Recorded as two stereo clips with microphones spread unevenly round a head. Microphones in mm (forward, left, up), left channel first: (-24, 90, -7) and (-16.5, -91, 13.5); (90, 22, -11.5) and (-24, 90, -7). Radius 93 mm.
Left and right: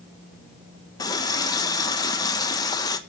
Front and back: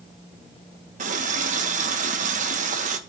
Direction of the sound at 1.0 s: 165° left.